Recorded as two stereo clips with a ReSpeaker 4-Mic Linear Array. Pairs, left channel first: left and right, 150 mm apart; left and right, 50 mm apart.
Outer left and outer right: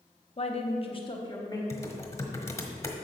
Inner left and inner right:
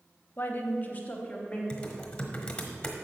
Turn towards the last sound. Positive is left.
turn(degrees=20)  # may be behind; listen again after turning